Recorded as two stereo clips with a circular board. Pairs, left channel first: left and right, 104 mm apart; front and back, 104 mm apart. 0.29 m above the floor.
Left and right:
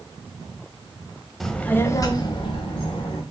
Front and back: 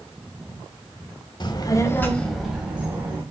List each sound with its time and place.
1.4 s a child speaking: straight ahead, 0.8 m; by 3.2 s 110° left, 1.3 m